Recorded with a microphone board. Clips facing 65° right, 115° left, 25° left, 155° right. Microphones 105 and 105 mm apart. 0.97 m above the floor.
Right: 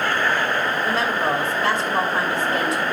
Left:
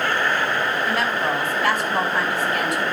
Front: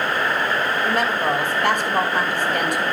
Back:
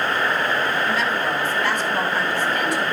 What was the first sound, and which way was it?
A woman speaking, 10° right.